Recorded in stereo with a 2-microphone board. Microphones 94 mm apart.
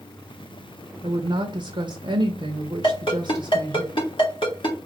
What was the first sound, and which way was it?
A woman speaking, 60° right (ahead or behind).